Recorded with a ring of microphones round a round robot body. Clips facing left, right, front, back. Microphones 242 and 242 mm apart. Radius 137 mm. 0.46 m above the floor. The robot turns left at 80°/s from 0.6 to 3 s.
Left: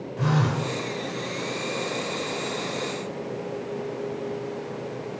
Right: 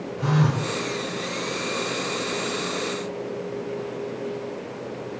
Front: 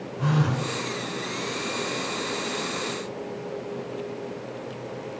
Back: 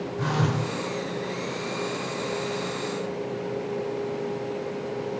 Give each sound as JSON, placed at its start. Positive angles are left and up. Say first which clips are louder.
{"t": 0.2, "sound": "a phone buzzing", "louder": "right 1 dB, front 2 dB", "azimuth_deg": 140, "distance_m": 1.2}